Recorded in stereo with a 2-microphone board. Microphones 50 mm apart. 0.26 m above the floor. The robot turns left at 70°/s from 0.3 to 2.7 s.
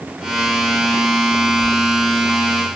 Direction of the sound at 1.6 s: 60° right (ahead or behind).